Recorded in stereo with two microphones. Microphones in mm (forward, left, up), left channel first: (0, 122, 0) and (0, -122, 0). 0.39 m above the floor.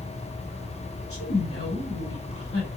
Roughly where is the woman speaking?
Left.